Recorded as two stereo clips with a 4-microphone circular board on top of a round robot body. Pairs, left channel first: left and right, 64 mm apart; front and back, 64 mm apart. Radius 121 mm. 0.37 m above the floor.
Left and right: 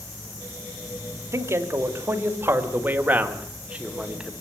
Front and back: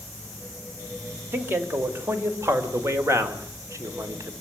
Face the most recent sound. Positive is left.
turn(degrees=-170)